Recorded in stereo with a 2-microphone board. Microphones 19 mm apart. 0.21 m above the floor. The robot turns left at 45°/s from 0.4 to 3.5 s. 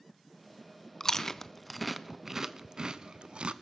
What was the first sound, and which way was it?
Chewing, 30° left (ahead or behind).